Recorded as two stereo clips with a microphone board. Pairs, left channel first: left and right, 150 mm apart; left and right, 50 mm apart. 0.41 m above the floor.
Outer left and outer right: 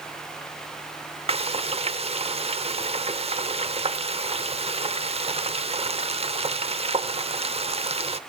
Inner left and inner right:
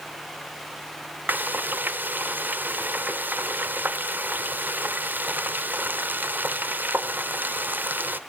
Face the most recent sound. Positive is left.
turn(degrees=-40)  # may be behind; listen again after turning